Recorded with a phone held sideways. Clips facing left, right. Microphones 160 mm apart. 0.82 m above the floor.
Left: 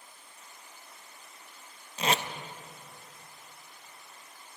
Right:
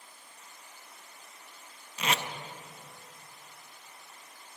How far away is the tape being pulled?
About 0.6 m.